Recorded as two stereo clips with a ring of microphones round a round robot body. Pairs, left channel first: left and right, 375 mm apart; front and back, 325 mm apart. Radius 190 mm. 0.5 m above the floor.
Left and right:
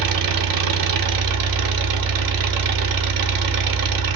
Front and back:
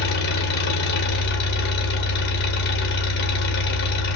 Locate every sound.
0.0 s an engine running: 60° right, 0.8 m